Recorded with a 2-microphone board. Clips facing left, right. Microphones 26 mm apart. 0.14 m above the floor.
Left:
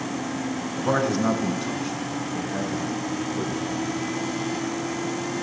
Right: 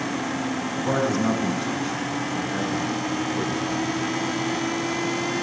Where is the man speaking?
25° left (ahead or behind), 1.5 m; by 3.9 s 30° right (ahead or behind), 2.5 m.